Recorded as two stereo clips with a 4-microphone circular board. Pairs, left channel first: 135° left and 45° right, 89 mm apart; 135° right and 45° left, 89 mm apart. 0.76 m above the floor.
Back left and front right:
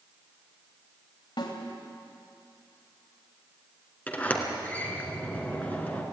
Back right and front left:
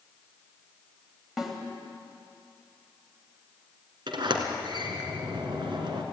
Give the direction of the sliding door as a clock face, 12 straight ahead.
10 o'clock.